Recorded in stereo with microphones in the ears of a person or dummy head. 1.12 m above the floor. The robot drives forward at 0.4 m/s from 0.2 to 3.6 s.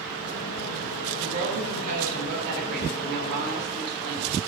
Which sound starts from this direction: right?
A woman speaking, at 1.2 s.